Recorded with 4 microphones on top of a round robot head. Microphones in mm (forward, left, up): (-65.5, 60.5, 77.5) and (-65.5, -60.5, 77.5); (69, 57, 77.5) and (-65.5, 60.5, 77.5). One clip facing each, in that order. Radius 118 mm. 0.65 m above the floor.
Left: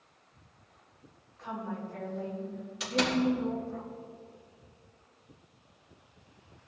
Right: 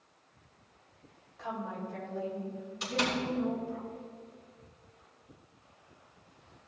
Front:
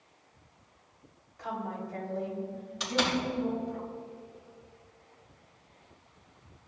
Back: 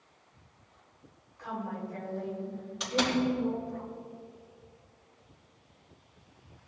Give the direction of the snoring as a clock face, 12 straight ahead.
No snoring in this recording.